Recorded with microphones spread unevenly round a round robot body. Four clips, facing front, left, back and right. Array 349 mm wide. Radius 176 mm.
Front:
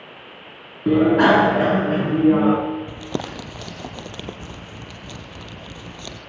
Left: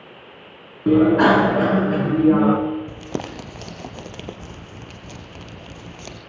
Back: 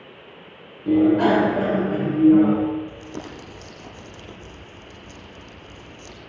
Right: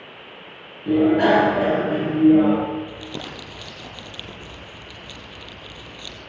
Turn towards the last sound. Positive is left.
turn(degrees=30)